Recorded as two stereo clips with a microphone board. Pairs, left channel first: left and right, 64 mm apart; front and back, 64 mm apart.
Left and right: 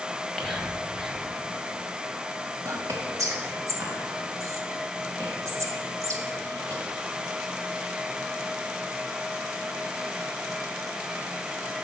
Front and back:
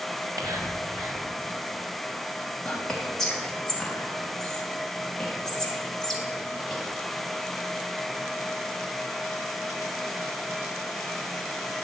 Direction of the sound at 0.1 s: Straight behind.